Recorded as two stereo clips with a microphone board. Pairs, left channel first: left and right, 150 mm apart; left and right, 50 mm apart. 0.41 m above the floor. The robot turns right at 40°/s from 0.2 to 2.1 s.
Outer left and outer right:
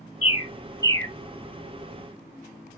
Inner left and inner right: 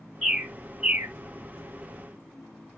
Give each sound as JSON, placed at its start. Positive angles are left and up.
{"t": 0.2, "sound": "a bird", "side_deg": -15, "distance_m": 1.0}